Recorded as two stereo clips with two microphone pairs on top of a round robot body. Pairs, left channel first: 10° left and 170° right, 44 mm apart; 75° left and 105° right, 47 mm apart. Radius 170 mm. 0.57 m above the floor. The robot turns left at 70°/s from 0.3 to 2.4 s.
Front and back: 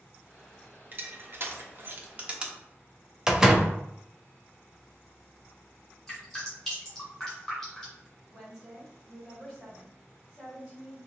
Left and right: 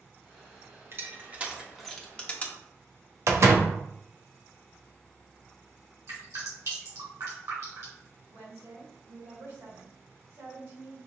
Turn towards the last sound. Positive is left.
turn(degrees=-95)